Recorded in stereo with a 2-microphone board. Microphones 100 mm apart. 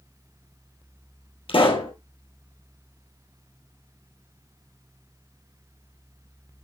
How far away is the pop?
About 2.5 m.